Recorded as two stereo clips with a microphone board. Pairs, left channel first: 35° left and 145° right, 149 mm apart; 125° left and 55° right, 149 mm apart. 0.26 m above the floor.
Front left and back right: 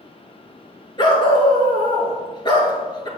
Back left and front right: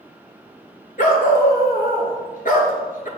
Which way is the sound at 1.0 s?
95° left.